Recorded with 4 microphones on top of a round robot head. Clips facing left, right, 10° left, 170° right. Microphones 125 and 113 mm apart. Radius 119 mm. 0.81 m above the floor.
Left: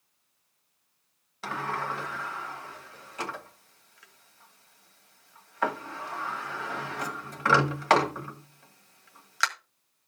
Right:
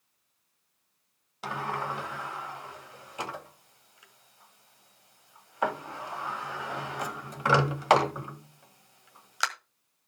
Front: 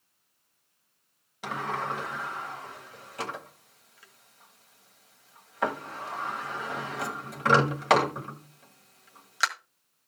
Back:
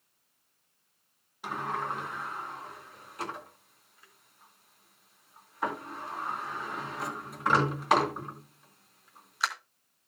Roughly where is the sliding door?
Ahead.